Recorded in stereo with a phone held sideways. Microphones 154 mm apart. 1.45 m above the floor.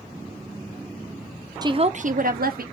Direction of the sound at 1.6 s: 25° right (ahead or behind).